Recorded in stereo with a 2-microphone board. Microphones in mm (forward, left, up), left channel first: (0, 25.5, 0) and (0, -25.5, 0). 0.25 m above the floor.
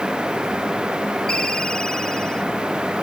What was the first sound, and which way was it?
A ringtone, 15° left (ahead or behind).